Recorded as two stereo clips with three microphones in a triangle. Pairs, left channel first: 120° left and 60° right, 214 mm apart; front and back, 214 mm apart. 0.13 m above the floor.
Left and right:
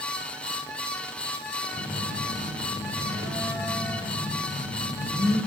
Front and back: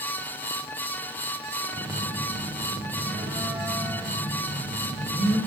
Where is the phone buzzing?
125° right, 6.5 m.